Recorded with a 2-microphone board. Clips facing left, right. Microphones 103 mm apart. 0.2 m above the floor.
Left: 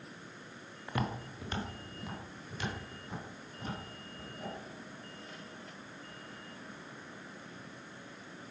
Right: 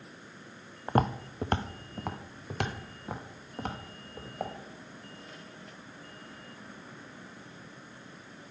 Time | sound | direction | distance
0.9 | footsteps | 45° right (ahead or behind) | 0.7 m